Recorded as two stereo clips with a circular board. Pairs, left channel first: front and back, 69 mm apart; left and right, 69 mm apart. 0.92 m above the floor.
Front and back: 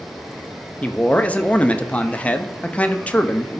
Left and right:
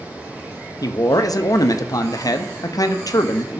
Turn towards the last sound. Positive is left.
turn(degrees=70)